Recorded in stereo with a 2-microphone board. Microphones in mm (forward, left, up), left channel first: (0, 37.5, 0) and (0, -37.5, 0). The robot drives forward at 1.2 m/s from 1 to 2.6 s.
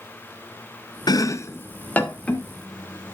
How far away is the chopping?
About 0.6 m.